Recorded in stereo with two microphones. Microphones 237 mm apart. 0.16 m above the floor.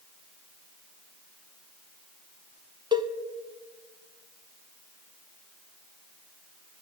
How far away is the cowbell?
About 0.5 m.